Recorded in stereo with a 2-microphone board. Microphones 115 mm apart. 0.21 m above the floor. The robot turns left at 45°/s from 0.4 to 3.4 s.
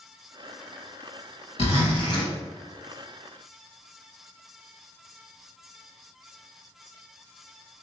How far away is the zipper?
About 1.6 m.